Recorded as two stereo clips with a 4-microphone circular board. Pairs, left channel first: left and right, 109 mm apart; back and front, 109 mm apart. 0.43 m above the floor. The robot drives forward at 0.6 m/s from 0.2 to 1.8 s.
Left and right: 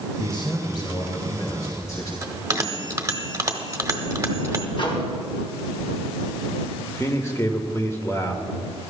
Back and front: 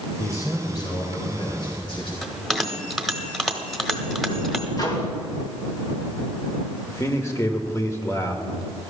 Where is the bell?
95° right, 1.3 m.